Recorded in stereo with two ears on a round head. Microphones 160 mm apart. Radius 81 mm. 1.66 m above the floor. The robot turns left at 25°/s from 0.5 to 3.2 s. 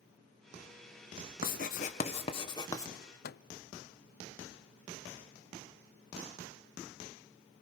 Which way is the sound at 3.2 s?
55° left (ahead or behind).